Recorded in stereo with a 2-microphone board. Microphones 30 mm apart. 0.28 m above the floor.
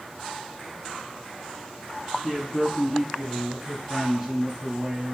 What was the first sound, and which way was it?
A man speaking, 10° left (ahead or behind).